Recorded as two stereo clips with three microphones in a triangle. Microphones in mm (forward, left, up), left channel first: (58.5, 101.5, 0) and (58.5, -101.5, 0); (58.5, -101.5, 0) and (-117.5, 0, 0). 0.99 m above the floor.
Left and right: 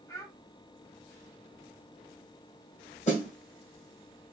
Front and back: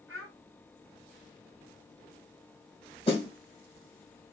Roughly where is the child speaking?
Behind.